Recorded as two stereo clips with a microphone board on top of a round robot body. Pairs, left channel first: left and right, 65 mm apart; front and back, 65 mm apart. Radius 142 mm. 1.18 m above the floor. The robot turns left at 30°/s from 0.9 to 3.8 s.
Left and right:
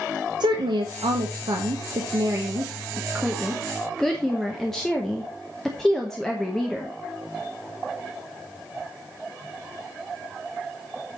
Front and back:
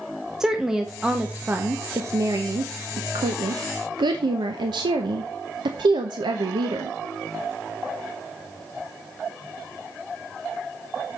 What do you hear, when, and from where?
0.4 s a woman speaking: 95° right, 0.9 m; by 7.0 s 175° left, 0.9 m